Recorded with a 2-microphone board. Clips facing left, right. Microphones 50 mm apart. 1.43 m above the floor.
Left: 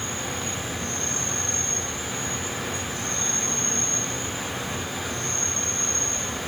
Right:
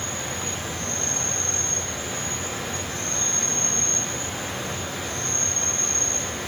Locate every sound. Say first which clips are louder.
0.0 s an insect: even; 10° left (ahead or behind), 8.5 m